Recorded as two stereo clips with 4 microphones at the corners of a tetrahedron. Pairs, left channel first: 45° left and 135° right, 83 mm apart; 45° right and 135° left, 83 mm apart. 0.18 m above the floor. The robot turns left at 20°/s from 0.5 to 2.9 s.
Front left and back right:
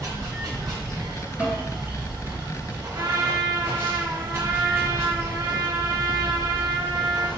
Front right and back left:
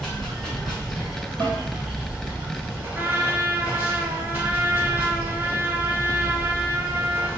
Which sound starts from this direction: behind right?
Running water, at 0.0 s.